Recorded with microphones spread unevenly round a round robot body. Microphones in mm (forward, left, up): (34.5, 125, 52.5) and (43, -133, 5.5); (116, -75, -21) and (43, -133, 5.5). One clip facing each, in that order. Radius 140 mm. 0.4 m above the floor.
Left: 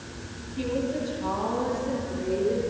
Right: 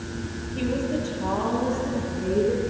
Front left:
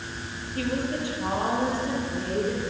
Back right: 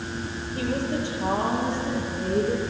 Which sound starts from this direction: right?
A woman speaking, at 0.6 s.